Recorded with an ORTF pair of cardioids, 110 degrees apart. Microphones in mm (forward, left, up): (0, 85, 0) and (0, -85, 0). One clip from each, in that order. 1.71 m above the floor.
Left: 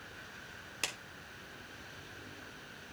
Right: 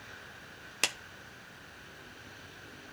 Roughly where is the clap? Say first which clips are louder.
Right 7 dB; ahead right.